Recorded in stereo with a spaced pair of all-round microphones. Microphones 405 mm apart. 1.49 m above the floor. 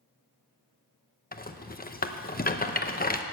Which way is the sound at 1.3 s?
20° left (ahead or behind).